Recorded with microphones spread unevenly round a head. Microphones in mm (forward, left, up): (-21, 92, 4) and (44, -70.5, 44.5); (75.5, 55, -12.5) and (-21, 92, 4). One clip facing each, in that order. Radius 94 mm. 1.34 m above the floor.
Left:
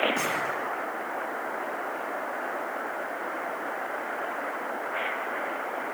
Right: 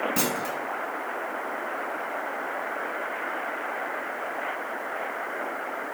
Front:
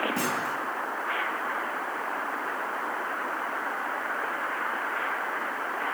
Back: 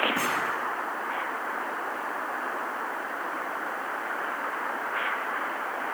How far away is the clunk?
About 3 m.